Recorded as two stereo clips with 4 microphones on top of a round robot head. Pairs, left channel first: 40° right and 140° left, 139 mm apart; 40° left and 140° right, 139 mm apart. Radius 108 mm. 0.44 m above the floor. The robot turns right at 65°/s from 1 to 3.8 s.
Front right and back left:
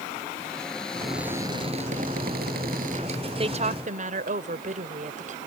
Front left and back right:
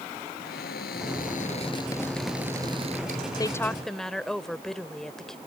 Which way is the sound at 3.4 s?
100° left.